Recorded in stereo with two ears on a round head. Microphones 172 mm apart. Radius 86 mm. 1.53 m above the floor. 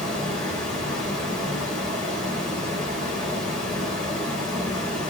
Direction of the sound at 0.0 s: 5° left (ahead or behind).